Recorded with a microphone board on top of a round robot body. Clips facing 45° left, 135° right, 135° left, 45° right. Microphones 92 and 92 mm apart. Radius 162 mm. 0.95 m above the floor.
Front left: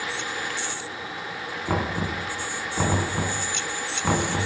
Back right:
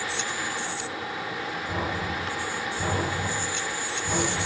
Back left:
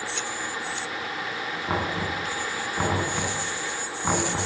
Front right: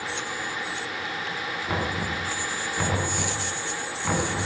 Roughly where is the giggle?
No giggle in this recording.